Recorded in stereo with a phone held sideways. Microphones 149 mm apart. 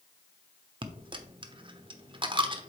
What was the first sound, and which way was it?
A dropped coin, 35° right (ahead or behind).